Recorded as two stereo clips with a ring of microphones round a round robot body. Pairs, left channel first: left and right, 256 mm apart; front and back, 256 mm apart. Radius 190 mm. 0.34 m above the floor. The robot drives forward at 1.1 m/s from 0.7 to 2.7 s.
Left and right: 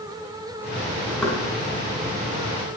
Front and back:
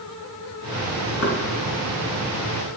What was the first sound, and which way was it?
Knocking, 5° left.